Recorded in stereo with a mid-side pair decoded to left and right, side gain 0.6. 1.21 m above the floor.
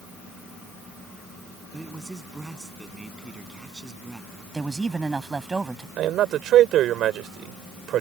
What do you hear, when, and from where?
1.7 s a man speaking: 15° right
4.5 s a man speaking: 20° right
6.0 s a man speaking: 55° right